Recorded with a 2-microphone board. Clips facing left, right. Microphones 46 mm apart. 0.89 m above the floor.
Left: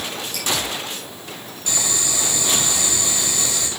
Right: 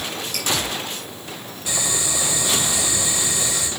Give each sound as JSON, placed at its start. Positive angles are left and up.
{"t": 0.3, "sound": "dripping", "side_deg": -55, "distance_m": 8.0}
{"t": 1.7, "sound": "boiling", "side_deg": -10, "distance_m": 5.5}